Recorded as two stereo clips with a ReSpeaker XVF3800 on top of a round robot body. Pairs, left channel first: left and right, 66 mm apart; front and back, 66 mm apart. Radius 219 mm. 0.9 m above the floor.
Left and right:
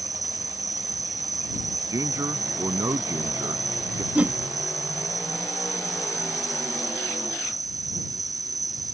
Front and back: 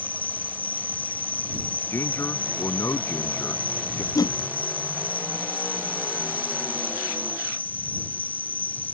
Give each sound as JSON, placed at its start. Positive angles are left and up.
{"t": 0.0, "sound": "an insect", "azimuth_deg": -65}
{"t": 1.9, "sound": "a man speaking", "azimuth_deg": -50}
{"t": 4.2, "sound": "a whoosh", "azimuth_deg": -20}